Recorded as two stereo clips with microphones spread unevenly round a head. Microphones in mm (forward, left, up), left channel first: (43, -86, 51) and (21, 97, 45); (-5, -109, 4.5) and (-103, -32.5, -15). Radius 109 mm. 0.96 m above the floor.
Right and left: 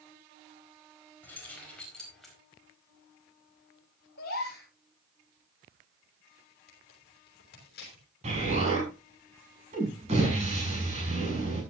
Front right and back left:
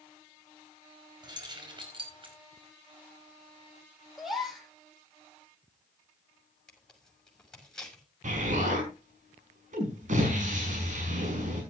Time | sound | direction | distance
1.2 | keys jangling | 165° right | 4.5 m
4.2 | a gasp | 130° right | 6 m
6.7 | tearing paper | 125° right | 6.5 m
8.2 | an explosion | 155° left | 6 m